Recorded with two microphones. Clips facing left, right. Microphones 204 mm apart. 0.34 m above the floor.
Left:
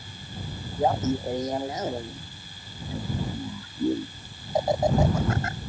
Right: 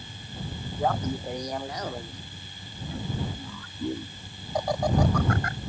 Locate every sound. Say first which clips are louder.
0.8 s laughter: left 4 dB; 25° left (ahead or behind)